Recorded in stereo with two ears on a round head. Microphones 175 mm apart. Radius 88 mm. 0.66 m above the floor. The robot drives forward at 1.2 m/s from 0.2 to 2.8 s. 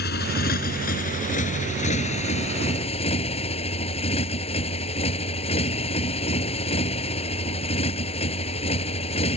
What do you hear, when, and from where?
0.0 s a motorcycle: 55° left (ahead or behind); by 9.4 s 30° left (ahead or behind)